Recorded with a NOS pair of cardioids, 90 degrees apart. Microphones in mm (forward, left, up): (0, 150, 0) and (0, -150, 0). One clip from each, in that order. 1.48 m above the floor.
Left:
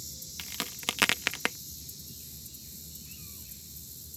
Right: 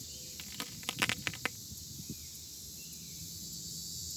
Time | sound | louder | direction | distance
0.4 | a crack | left 9 dB | 45° left | ?